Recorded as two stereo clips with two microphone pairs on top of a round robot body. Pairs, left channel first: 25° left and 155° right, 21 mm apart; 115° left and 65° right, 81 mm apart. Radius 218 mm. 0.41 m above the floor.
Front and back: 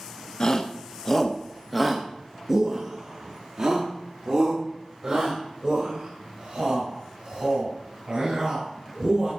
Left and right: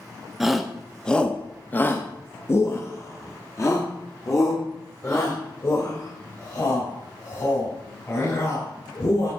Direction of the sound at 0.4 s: 25° left.